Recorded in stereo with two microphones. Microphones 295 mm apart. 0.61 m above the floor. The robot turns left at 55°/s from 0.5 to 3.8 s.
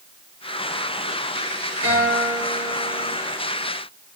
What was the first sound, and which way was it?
A guitar, 125° right.